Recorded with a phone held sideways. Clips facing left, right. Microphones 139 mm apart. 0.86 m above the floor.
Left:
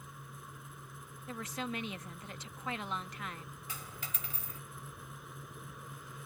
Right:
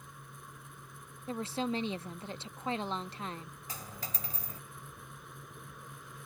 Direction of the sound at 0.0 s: Centre (ahead or behind).